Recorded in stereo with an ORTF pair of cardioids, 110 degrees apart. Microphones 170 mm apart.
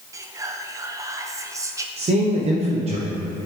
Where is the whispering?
20° right, 0.8 m.